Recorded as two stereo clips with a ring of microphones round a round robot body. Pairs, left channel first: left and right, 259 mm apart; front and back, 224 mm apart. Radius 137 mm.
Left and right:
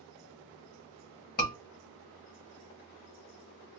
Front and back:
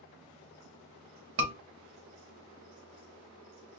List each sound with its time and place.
1.4 s a scream: 145° left, 2.0 m